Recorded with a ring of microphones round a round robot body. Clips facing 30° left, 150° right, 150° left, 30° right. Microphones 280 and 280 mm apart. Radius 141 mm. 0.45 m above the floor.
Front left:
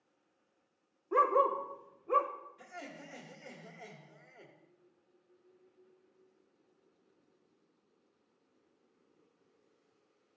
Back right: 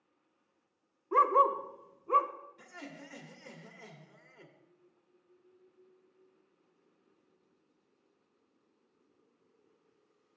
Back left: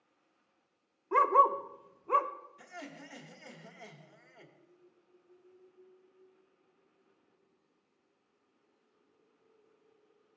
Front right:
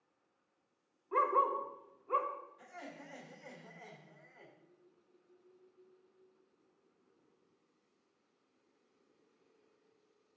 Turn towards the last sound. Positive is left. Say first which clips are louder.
# back right 2 dB, back left 3 dB
turn(degrees=140)